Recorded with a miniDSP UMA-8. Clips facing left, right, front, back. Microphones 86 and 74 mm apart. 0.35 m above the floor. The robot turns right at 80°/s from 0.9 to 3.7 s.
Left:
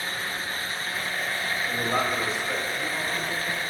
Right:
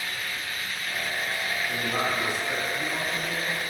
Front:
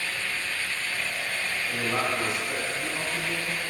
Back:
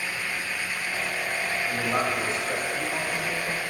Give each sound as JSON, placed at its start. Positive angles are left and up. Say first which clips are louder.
{"t": 1.7, "sound": "a man speaking", "louder": "left 3 dB, back 1 dB", "azimuth_deg": 90, "distance_m": 1.3}